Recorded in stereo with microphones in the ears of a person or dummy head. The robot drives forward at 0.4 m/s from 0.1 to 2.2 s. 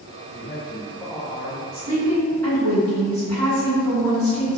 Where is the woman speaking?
10° left (ahead or behind), 1.9 m.